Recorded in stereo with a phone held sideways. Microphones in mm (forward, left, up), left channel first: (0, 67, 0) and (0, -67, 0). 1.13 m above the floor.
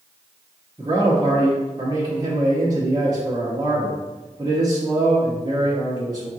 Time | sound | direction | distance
0.8 | a man speaking | 30° right (ahead or behind) | 1.0 m